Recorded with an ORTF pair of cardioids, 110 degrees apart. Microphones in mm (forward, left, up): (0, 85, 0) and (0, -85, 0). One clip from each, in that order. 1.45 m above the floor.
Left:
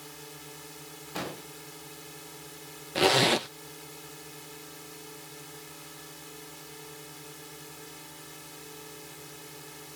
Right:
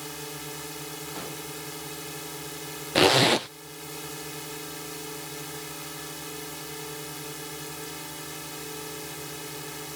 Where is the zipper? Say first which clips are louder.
Right 3 dB; 45° right.